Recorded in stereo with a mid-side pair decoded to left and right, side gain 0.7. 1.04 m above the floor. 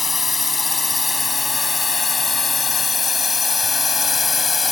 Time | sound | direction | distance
0.0 | a drone | 20° left | ?